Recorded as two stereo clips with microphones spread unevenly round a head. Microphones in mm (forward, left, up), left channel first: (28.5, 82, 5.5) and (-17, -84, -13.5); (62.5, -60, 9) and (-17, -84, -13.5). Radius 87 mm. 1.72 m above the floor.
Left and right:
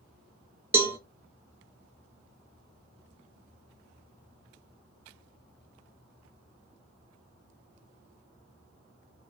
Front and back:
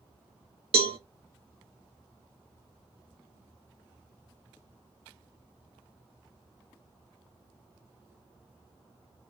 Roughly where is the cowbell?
Behind.